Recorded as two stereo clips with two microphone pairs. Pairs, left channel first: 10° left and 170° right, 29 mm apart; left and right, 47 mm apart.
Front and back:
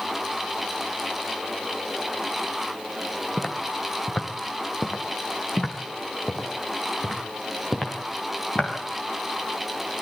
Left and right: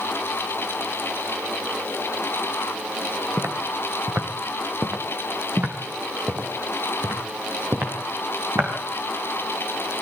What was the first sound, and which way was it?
Footsteps, 45° right.